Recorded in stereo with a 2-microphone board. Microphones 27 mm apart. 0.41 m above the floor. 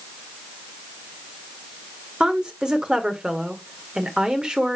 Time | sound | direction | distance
2.2 | a woman speaking | 30° right (ahead or behind) | 1.2 m